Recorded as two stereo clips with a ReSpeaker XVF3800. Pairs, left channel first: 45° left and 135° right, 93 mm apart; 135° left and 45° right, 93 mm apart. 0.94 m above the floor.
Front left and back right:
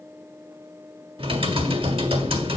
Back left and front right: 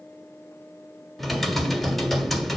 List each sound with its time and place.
1.2 s typing on a keyboard: 135° right, 1.4 m